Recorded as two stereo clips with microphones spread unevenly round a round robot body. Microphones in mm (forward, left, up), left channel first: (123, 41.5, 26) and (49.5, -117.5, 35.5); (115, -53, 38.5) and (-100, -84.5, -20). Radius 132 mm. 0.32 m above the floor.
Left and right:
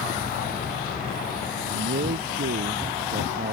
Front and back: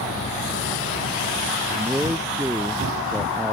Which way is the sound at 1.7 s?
90° right.